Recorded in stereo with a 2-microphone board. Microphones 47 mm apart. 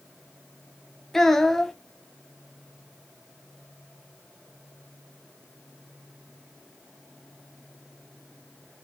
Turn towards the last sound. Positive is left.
turn(degrees=5)  # may be behind; listen again after turning